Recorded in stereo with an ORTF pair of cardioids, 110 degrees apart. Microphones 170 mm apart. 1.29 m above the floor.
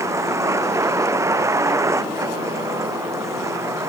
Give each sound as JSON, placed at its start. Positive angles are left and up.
{"t": 0.0, "sound": "a vehicle", "azimuth_deg": -15}